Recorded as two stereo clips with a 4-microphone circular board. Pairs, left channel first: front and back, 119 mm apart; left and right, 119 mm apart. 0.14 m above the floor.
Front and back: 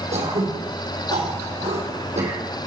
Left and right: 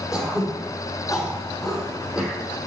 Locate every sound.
0.1 s throat clearing: 175° right, 4.5 m